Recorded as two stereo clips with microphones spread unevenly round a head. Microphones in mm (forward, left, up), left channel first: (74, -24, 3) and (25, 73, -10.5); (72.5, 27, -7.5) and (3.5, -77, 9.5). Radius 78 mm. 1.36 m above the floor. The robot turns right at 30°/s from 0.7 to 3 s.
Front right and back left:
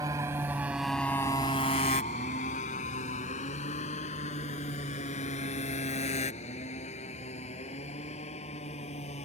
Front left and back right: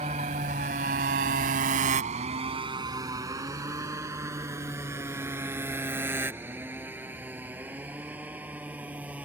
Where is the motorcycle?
170° right; by 9.3 s 45° right.